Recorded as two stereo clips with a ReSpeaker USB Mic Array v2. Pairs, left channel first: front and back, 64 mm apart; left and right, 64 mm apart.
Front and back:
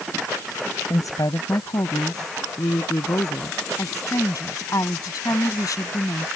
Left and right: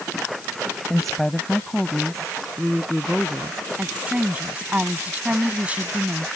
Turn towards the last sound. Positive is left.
turn(degrees=-20)